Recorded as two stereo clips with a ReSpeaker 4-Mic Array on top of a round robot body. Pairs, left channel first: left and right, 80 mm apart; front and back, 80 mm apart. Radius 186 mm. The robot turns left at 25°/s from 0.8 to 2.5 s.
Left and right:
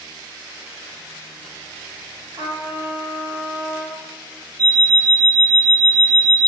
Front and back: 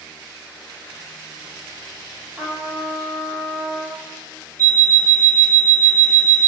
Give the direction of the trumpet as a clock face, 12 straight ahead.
4 o'clock.